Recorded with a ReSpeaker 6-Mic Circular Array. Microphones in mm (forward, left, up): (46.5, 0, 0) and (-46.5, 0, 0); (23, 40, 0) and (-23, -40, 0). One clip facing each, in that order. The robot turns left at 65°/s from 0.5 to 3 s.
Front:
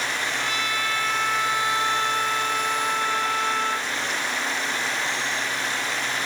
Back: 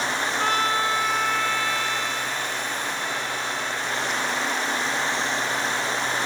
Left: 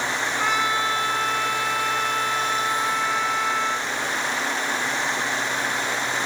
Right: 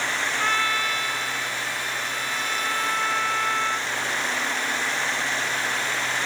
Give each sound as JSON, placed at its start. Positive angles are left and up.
{"t": 0.4, "sound": "a trumpet", "azimuth_deg": 140}